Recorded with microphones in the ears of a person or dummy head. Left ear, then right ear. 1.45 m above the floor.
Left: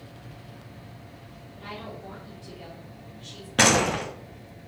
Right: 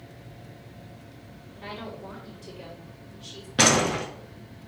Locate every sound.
1.6 s a woman speaking: 15° right (ahead or behind), 3.5 m; by 3.5 s 5° right (ahead or behind), 4 m
3.6 s a door slam: 20° left (ahead or behind), 1.7 m